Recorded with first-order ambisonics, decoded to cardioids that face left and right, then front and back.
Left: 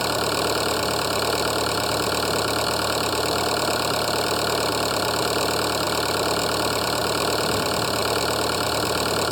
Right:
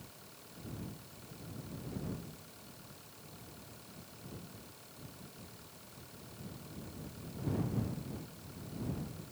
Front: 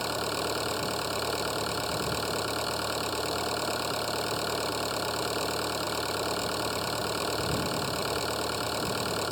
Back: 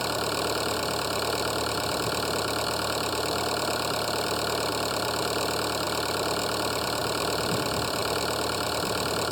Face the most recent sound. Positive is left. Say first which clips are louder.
# left 34 dB, back 3 dB
turn(degrees=100)